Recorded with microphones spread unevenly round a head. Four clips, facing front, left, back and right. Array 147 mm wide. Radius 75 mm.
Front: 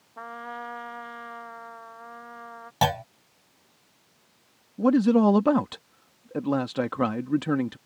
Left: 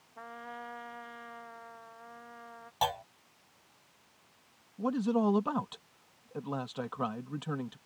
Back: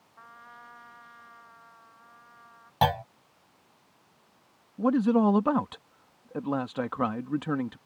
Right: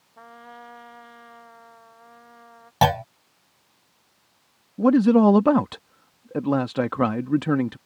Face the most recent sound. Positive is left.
turn(degrees=-60)